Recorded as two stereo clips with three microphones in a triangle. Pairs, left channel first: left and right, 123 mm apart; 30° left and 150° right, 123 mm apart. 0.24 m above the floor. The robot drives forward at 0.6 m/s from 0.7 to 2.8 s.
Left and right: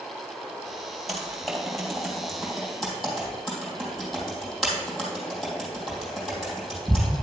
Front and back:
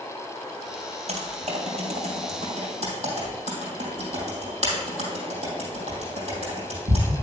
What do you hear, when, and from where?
1.1 s typing on a keyboard: straight behind, 2.5 m